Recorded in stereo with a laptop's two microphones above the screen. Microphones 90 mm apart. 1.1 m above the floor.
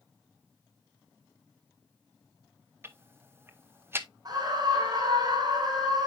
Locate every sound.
2.8 s ticking: 25° right (ahead or behind), 0.9 m
4.2 s a scream: 45° right (ahead or behind), 4.5 m